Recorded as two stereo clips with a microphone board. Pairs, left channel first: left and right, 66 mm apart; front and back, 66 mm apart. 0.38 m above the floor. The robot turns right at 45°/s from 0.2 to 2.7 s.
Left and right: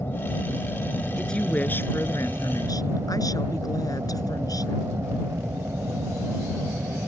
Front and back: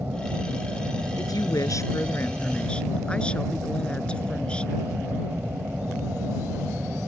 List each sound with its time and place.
0.0 s an aircraft: 125° left; by 7.1 s 120° right
1.2 s a woman speaking: 5° left; by 4.8 s 75° left